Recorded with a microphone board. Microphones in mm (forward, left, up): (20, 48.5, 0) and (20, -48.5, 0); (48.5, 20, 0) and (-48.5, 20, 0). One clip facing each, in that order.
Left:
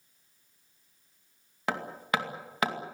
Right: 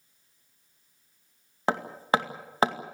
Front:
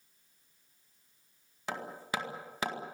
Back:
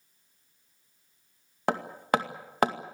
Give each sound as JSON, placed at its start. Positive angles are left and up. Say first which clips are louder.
{"t": 1.7, "sound": "hammering", "louder": "right 5 dB, back 10 dB", "azimuth_deg": -150, "distance_m": 2.0}